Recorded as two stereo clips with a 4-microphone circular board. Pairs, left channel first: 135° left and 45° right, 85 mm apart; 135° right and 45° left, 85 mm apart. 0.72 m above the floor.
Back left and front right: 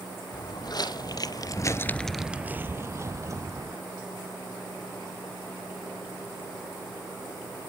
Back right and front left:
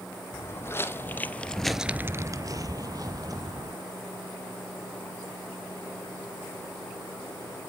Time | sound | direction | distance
0.3 | footsteps | 170° left | 2 m